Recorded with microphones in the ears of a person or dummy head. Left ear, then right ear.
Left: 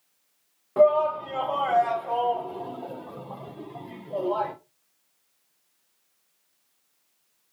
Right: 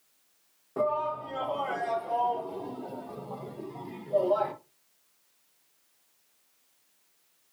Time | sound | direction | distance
0.8 | a shout | 65° left (ahead or behind) | 2.5 m